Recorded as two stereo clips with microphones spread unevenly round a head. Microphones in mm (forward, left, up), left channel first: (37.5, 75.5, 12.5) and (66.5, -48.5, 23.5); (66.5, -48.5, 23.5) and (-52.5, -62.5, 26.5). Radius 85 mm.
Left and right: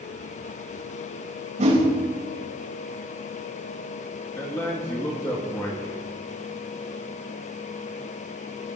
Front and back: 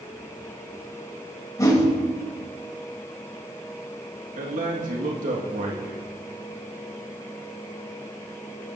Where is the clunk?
No clunk in this recording.